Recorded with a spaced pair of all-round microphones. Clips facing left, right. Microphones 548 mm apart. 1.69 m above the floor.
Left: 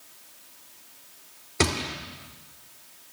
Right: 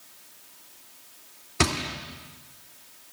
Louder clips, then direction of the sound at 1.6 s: Left 1 dB; 15° right (ahead or behind).